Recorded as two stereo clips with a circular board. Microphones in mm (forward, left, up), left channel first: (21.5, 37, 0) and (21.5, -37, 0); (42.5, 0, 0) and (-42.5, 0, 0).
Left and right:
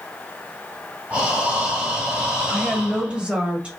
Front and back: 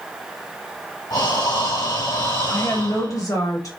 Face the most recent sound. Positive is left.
turn(degrees=-20)